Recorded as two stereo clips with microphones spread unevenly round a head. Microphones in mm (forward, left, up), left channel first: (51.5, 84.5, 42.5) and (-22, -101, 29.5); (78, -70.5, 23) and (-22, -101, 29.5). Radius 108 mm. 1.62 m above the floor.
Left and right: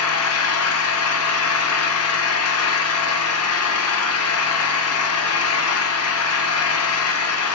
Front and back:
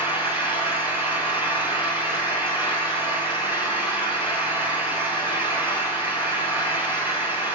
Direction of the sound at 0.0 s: 85° left.